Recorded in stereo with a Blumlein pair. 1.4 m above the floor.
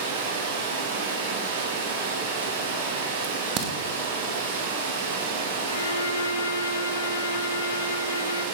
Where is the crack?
35° right, 2.5 m.